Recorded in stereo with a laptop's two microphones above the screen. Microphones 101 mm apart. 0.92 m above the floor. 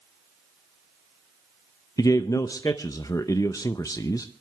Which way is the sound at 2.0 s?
35° left (ahead or behind).